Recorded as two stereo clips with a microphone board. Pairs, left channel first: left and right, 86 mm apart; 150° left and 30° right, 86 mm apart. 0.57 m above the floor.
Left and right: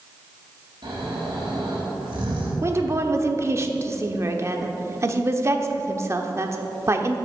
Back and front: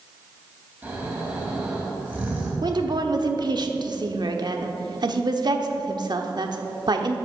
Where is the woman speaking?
40° right, 1.0 m.